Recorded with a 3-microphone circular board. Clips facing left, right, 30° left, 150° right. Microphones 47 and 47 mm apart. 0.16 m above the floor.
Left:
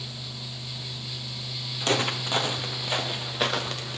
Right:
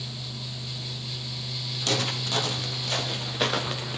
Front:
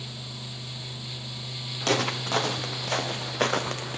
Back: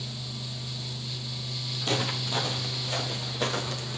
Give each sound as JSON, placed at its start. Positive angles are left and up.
{"t": 1.8, "sound": "footsteps", "azimuth_deg": 30, "distance_m": 4.5}